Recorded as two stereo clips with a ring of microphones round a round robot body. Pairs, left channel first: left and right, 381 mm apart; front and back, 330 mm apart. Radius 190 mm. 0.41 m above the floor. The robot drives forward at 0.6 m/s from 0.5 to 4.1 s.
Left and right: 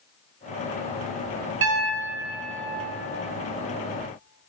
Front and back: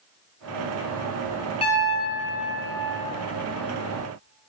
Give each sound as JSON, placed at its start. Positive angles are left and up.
{"t": 1.6, "sound": "a piano", "azimuth_deg": -60, "distance_m": 1.0}